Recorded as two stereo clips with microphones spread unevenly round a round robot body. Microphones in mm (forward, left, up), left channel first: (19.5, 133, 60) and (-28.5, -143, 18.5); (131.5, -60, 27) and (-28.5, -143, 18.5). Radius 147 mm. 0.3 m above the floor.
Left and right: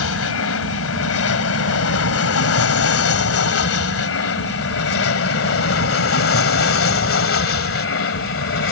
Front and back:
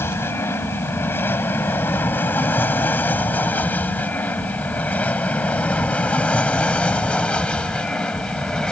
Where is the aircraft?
105° left; by 8.7 s 115° left.